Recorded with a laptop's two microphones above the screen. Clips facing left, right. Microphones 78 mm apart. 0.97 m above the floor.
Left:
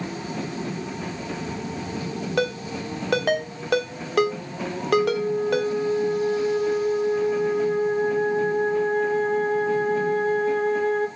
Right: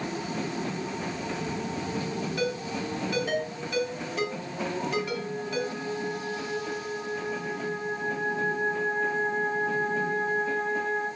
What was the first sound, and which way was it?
A ringtone, 75° left (ahead or behind).